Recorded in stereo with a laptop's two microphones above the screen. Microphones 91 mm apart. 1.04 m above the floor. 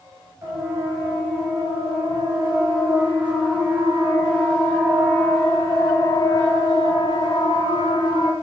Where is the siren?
35° right (ahead or behind), 8.5 m; by 8.3 s 70° left (ahead or behind), 5.5 m.